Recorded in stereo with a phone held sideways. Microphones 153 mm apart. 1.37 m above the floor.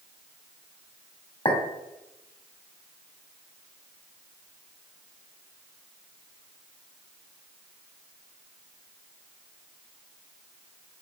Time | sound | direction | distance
1.4 | a clink | 40° left (ahead or behind) | 2 m